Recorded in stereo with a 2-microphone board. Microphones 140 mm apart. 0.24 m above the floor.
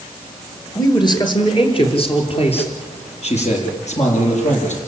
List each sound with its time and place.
0.8 s a man speaking: 30° left (ahead or behind), 4 m; by 4.8 s 60° left (ahead or behind), 7 m